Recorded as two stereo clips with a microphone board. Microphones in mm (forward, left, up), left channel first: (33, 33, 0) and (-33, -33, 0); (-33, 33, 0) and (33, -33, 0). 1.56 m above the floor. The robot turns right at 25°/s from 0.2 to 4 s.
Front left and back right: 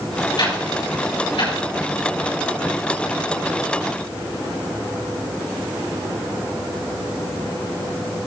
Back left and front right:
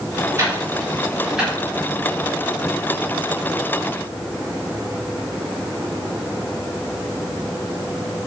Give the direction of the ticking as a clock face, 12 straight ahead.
12 o'clock.